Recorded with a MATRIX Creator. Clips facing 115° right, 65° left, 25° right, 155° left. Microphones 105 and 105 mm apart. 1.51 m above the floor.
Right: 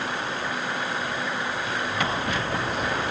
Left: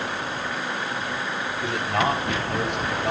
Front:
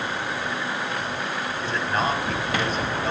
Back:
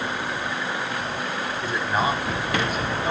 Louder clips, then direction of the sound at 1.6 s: Left 8 dB, back 1 dB; 75° left.